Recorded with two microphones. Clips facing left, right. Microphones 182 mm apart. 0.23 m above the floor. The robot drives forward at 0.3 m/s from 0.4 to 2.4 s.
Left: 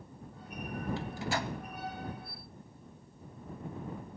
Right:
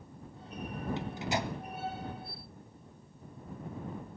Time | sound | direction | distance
1.0 | a microwave | 20° right (ahead or behind) | 0.8 m